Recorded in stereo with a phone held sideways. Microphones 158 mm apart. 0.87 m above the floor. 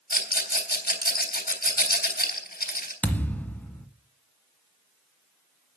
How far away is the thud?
About 1.6 m.